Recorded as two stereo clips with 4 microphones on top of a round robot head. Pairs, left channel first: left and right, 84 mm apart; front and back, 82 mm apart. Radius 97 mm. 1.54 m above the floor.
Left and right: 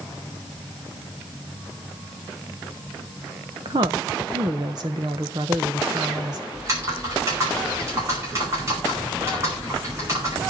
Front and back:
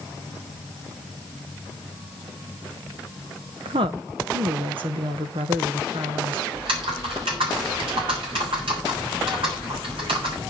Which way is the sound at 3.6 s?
140° right.